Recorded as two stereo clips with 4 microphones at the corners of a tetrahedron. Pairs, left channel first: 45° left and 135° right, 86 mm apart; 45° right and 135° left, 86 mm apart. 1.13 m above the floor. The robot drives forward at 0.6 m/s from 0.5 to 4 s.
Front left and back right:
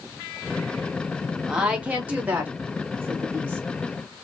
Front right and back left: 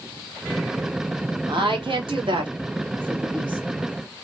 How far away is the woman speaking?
About 1.4 m.